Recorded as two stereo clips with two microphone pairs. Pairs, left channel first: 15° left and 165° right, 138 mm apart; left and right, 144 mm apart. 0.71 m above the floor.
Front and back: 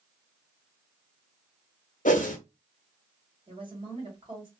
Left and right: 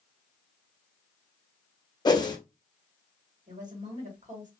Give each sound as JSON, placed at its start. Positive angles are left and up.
{"t": 2.0, "sound": "a whoosh", "azimuth_deg": 30, "distance_m": 0.7}
{"t": 3.5, "sound": "a woman speaking", "azimuth_deg": -115, "distance_m": 1.4}